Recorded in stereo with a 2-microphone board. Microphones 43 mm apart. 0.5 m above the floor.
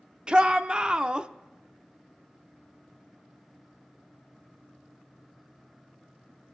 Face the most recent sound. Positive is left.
turn(degrees=-20)  # may be behind; listen again after turning